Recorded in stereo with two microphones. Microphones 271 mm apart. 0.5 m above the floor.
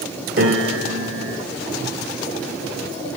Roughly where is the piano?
Right.